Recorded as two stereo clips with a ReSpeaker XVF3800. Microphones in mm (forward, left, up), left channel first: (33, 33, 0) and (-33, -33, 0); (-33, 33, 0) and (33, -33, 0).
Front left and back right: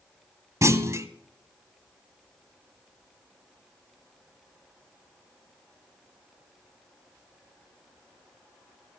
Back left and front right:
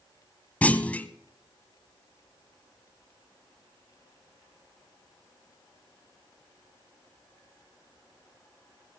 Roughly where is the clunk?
Behind.